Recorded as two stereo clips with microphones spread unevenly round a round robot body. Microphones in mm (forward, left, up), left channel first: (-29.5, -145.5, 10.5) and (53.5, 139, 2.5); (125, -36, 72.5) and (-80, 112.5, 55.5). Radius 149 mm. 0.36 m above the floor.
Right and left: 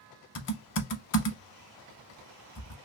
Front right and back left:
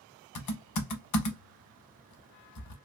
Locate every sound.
0.3 s typing on a keyboard: 55° right, 0.7 m